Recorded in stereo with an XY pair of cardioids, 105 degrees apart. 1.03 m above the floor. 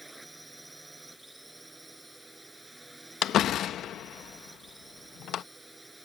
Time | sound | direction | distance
0.0 | a drone | 10° right | ?
3.2 | a door slam | 70° left | ?